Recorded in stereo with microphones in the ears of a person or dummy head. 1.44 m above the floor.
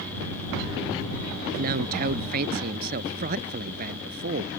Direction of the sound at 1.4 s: 50° right (ahead or behind).